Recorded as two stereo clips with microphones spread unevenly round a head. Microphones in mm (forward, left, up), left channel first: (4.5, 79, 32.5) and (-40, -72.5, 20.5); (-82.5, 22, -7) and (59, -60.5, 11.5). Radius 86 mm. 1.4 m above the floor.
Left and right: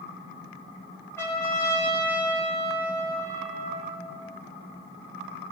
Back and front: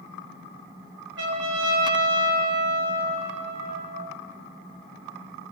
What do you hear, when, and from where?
1.2 s a trumpet: straight ahead, 4.5 m